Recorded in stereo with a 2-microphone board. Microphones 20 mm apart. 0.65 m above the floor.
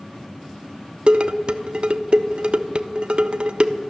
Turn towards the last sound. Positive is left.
turn(degrees=-55)  # may be behind; listen again after turning